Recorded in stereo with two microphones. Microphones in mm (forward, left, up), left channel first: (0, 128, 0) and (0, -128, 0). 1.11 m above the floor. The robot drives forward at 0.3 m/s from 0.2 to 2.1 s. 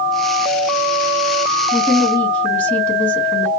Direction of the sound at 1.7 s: Centre (ahead or behind).